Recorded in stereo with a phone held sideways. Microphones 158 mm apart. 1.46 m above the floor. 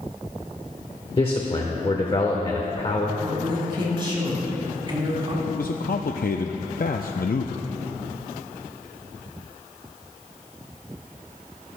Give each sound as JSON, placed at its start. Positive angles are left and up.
{"t": 1.2, "sound": "a man speaking", "side_deg": 35, "distance_m": 1.1}
{"t": 3.2, "sound": "a woman speaking", "side_deg": -35, "distance_m": 4.0}
{"t": 5.5, "sound": "a man speaking", "side_deg": 70, "distance_m": 0.5}